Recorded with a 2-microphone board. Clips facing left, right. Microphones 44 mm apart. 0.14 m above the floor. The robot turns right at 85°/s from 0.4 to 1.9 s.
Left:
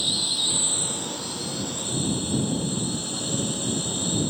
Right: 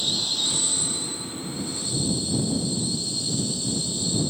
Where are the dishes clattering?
No dishes clattering in this recording.